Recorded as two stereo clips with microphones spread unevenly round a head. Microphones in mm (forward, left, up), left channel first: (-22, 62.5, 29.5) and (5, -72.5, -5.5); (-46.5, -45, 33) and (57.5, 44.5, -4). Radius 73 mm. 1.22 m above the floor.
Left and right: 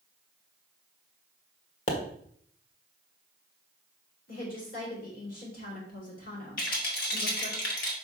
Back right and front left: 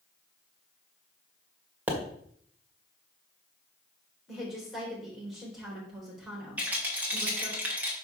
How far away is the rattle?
About 2.5 m.